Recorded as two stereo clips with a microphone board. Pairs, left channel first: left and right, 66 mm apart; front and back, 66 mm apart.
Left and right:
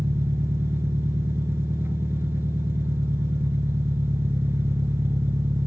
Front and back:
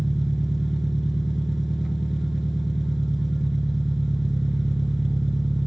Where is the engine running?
95° right, 1.0 m.